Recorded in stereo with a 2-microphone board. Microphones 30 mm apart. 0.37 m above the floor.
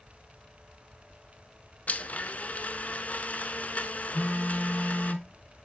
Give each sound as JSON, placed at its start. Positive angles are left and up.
{"t": 1.9, "sound": "a blender", "side_deg": 55, "distance_m": 0.6}
{"t": 4.1, "sound": "a phone buzzing", "side_deg": 85, "distance_m": 2.5}